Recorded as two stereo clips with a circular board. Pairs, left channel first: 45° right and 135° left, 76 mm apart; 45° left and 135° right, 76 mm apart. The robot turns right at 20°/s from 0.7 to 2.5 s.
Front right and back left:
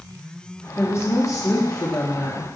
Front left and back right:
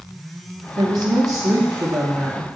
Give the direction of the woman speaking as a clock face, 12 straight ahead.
3 o'clock.